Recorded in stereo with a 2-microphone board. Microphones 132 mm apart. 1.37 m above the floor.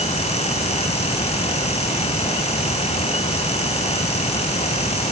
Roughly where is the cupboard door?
No cupboard door in this recording.